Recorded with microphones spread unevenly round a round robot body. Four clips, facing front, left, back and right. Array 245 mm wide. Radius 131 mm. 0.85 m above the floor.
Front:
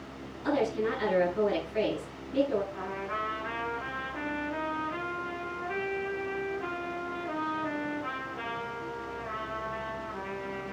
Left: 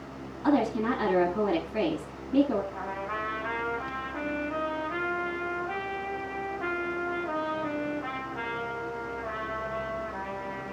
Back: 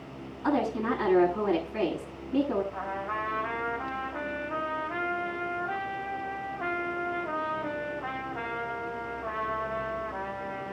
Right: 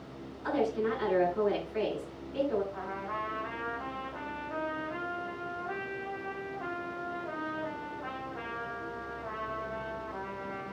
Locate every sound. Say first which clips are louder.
0.4 s a woman speaking: left 5 dB, back 1 dB; 120° left, 8 m
2.7 s a trumpet: left 3 dB, back 2 dB; 150° left, 5 m